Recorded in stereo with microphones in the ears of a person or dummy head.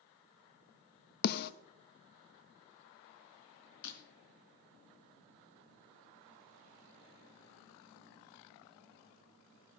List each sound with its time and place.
1.2 s a snare drum: 55° left (ahead or behind), 0.8 m
3.8 s breaking glass: 70° left (ahead or behind), 3.5 m